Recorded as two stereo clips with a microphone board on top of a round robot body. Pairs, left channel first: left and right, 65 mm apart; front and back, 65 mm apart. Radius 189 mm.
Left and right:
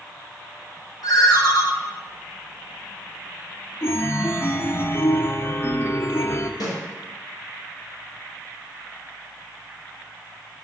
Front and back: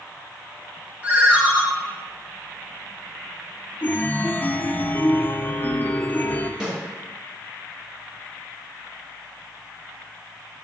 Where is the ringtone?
110° left, 1.3 m.